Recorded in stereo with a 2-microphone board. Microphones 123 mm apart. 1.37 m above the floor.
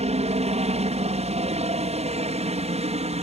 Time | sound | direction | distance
0.0 | a helicopter | 60° right (ahead or behind) | ?